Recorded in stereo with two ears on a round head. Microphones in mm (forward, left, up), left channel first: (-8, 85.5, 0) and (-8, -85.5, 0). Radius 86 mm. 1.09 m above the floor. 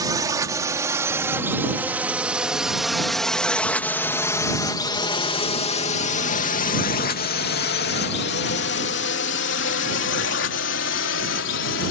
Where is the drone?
20° right (ahead or behind); by 11.9 s 70° left (ahead or behind).